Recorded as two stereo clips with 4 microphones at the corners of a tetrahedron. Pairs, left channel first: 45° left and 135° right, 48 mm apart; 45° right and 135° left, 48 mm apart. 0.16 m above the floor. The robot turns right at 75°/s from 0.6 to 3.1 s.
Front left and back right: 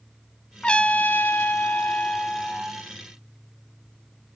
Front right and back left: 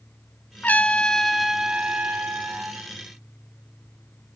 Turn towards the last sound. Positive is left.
turn(degrees=170)